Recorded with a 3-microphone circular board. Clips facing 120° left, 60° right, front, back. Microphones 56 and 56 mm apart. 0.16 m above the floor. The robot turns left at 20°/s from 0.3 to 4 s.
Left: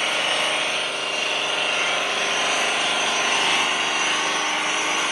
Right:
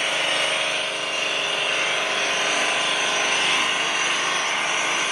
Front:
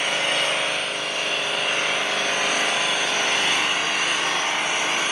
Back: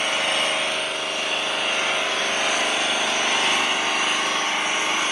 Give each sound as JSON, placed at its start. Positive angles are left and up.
{"t": 0.0, "sound": "an engine running", "azimuth_deg": 5, "distance_m": 1.7}